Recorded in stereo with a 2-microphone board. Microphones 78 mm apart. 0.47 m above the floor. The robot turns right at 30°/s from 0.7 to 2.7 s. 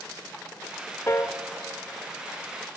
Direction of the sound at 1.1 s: 35° left (ahead or behind).